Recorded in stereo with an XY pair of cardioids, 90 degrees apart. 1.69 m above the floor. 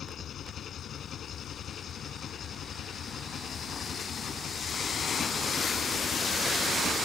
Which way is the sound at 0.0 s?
65° left.